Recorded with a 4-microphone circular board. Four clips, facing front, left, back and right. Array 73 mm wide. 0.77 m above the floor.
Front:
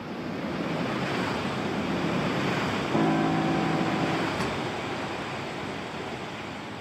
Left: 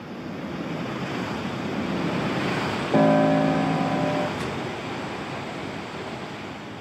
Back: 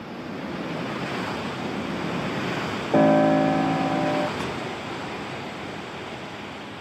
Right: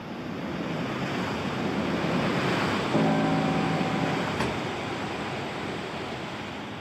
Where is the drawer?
90° right, 1.7 m.